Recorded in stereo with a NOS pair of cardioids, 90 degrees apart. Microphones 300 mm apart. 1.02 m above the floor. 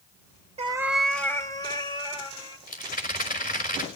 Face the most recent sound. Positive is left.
turn(degrees=30)